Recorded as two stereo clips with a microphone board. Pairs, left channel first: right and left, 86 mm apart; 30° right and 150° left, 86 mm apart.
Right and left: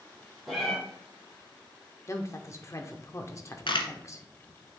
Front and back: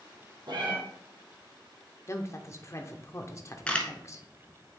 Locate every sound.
0.5 s a cat meowing: straight behind, 3 m
2.1 s a woman speaking: 60° right, 0.8 m
3.7 s a camera shutter: 105° right, 1.0 m